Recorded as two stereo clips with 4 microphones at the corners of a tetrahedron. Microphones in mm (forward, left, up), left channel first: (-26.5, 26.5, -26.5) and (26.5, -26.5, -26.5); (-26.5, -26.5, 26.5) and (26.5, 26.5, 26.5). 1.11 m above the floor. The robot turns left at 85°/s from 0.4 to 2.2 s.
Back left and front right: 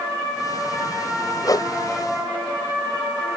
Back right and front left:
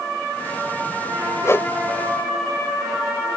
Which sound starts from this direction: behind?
A whoosh, at 1.4 s.